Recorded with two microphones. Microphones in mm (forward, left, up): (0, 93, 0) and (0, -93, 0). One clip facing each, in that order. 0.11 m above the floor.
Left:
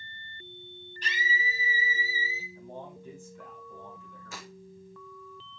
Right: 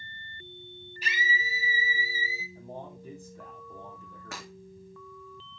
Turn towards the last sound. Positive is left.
turn(degrees=-70)  # may be behind; listen again after turning